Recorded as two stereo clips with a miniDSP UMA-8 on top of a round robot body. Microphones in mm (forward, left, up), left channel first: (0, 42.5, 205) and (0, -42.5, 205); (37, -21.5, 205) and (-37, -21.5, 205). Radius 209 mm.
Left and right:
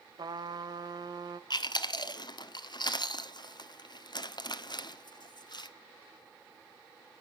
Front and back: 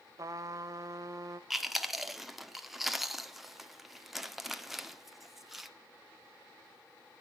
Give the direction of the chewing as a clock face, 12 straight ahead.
9 o'clock.